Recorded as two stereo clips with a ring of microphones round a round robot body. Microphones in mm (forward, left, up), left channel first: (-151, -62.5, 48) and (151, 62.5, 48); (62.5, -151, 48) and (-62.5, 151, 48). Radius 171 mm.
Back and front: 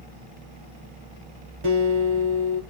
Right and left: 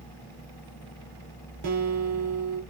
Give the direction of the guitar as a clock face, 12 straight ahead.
10 o'clock.